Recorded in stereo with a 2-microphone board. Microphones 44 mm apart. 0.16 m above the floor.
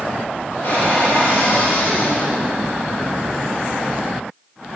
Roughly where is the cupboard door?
Left.